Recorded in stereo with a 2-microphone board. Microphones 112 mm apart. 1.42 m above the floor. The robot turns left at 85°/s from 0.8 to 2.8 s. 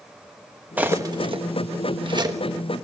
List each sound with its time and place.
0.8 s cutlery clinking: 15° right (ahead or behind), 1.1 m; by 2.4 s 25° right (ahead or behind), 1.1 m